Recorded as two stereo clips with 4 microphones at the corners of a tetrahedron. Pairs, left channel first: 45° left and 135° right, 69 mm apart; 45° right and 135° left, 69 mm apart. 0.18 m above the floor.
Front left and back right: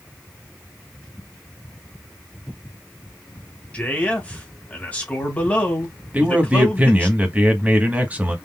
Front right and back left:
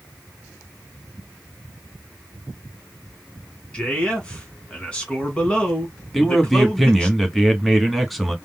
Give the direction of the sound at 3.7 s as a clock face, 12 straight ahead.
12 o'clock.